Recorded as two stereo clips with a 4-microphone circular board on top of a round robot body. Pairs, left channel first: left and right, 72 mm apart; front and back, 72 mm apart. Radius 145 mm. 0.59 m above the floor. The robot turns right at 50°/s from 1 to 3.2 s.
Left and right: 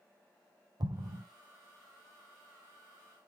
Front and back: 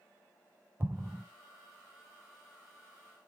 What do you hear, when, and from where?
0.8 s an explosion: 120° right, 1.0 m; by 1.2 s 105° right, 1.0 m